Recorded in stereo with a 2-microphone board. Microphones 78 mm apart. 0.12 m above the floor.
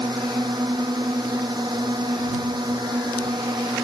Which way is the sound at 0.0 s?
70° right (ahead or behind).